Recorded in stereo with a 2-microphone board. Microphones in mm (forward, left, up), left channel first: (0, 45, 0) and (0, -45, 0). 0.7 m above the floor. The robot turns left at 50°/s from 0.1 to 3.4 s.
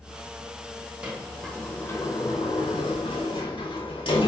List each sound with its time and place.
1.0 s a sliding door: 15° right (ahead or behind), 0.8 m; by 4.3 s 70° left (ahead or behind), 0.8 m